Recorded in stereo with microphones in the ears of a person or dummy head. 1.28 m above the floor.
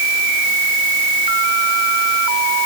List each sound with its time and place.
Only background noise.